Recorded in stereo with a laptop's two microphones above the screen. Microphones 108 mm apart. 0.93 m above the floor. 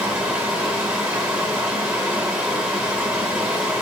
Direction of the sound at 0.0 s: 10° right (ahead or behind).